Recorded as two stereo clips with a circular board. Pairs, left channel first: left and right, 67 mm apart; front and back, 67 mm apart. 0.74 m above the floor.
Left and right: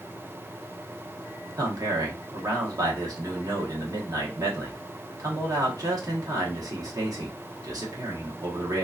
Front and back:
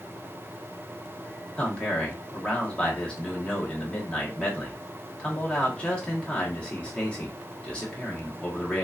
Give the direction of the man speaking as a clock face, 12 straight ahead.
2 o'clock.